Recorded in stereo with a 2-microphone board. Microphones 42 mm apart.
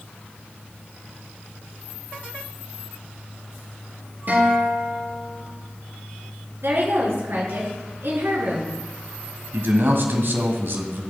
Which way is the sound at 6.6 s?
65° right (ahead or behind).